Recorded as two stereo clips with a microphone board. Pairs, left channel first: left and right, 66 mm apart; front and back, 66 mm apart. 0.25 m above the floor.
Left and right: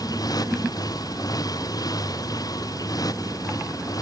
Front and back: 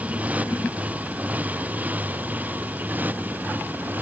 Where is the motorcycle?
110° left; by 4.0 s 115° left.